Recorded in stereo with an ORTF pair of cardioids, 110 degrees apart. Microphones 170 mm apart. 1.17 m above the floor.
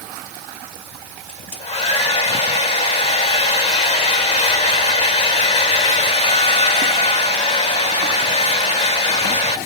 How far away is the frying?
I don't hear frying.